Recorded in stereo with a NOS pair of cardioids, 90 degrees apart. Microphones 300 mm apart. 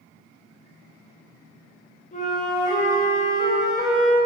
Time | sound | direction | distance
2.1 | a flute | 25° left | 1.1 m